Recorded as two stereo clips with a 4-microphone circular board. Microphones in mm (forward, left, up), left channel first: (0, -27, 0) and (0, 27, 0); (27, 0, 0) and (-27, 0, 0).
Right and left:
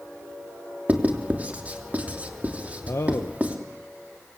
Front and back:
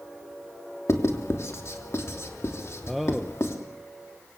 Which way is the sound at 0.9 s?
30° left.